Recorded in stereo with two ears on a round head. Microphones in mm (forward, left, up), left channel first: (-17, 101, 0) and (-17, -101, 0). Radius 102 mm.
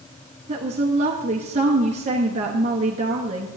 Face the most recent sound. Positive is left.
turn(degrees=-30)  # may be behind; listen again after turning